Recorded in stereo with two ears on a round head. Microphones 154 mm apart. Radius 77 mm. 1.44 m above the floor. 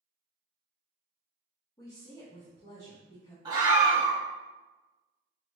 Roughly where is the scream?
Right.